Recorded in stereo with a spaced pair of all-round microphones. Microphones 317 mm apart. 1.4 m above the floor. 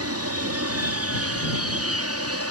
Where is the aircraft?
45° right (ahead or behind).